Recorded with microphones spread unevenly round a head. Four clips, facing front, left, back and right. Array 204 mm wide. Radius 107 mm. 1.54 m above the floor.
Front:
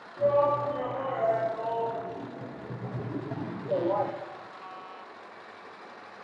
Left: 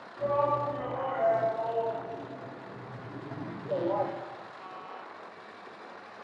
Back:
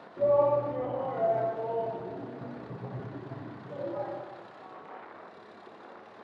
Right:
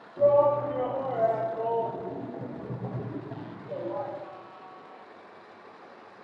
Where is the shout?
110° right, 3 m; by 4.1 s 30° left, 1.3 m.